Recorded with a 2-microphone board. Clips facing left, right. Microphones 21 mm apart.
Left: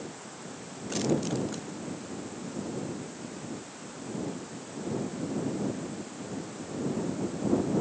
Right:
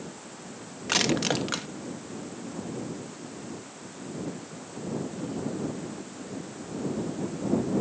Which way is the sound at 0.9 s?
65° right (ahead or behind).